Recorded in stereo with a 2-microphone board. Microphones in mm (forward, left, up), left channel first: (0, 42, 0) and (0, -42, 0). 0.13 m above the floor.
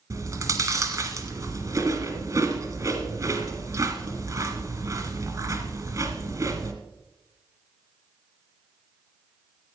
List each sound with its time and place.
0.1 s chewing: 40° right (ahead or behind), 1.5 m